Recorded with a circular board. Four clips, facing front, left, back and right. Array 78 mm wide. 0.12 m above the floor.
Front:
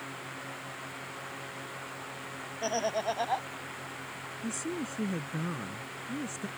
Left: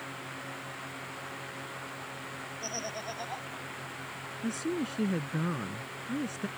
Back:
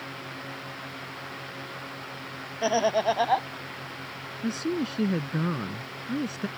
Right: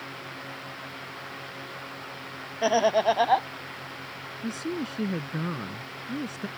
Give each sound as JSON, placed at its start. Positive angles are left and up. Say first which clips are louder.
{"t": 2.6, "sound": "laughter", "louder": "right 19 dB, back 7 dB", "azimuth_deg": -110}
{"t": 4.4, "sound": "a woman speaking", "louder": "right 1 dB, back 8 dB", "azimuth_deg": -170}